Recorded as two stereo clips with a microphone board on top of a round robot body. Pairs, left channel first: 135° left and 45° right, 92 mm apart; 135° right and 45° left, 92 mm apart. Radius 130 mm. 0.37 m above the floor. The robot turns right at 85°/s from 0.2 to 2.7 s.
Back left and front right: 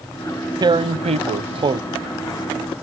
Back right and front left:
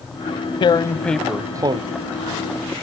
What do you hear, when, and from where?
0.6 s tearing paper: 95° right; by 1.8 s 5° left